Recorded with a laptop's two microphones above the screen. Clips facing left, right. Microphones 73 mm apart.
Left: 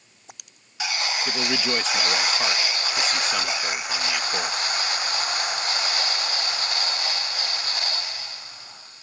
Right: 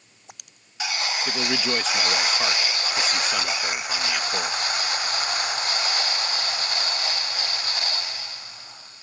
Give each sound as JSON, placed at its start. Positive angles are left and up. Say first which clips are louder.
{"t": 1.2, "sound": "a man speaking", "louder": "right 1 dB", "side_deg": 0}